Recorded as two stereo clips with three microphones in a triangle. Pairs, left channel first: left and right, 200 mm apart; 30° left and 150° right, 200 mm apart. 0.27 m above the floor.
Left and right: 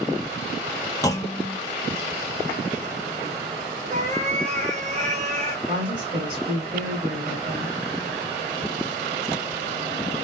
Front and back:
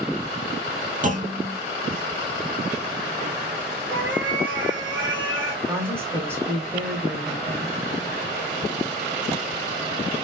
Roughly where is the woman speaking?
Right.